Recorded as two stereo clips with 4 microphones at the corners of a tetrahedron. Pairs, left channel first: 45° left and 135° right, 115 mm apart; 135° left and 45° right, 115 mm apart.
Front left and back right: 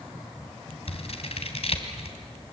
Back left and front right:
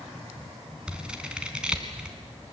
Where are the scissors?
35° left, 2 m.